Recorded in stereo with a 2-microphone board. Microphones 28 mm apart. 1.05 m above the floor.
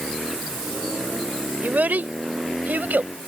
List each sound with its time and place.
1.6 s a child speaking: 85° right